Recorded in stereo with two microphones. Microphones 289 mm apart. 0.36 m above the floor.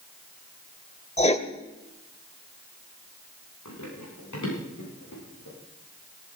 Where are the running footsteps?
90° left, 9 m; by 5.6 s 75° left (ahead or behind), 9.5 m.